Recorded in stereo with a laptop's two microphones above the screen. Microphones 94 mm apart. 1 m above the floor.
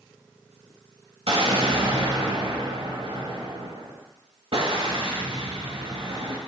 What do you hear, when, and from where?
1.3 s an explosion: 70° right (ahead or behind), 1.7 m